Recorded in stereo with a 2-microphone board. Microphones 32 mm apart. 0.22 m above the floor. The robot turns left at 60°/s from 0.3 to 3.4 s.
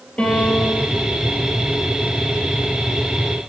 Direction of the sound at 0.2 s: 145° left.